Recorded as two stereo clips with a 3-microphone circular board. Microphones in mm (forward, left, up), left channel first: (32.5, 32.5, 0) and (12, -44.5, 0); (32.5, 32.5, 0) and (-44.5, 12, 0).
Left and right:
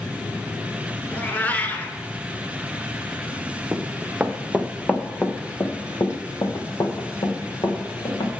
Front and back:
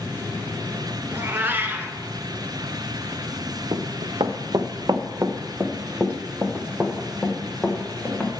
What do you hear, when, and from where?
1.1 s a cat meowing: 135° left, 0.9 m
3.7 s running footsteps: 170° right, 1.0 m; by 8.3 s 100° left, 2.5 m